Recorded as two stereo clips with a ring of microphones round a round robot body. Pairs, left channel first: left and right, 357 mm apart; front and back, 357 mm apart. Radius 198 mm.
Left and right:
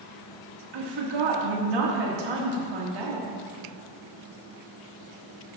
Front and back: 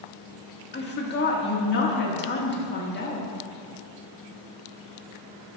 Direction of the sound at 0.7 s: 60° right.